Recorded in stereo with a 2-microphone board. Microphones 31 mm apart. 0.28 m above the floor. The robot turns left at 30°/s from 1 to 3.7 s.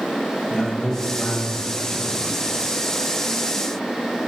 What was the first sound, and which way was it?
A man speaking, 20° left (ahead or behind).